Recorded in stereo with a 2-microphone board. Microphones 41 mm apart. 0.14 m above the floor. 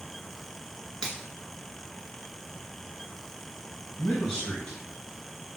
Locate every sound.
1.0 s a finger snap: 20° left (ahead or behind), 1.9 m
4.0 s a man speaking: 30° left (ahead or behind), 2.0 m